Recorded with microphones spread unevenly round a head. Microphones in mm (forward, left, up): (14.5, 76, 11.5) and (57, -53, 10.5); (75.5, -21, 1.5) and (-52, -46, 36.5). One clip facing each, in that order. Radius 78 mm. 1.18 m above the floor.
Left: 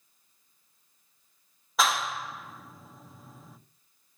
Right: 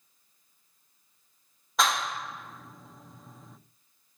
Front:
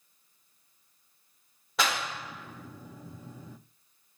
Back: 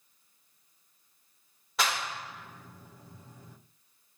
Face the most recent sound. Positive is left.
turn(degrees=20)